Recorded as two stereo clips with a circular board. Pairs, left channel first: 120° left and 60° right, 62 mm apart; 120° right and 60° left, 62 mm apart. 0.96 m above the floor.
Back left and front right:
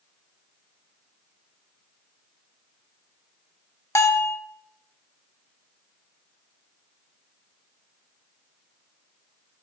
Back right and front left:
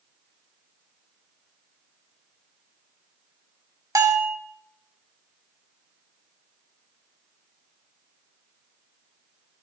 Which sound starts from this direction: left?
A bell, at 4.0 s.